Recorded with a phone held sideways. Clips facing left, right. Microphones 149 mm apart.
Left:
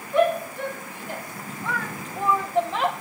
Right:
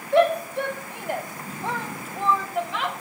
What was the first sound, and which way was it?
A shout, 65° right (ahead or behind).